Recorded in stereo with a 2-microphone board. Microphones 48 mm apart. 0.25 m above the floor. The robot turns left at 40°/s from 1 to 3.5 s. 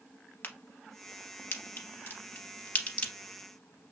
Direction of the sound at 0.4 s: 45° left (ahead or behind).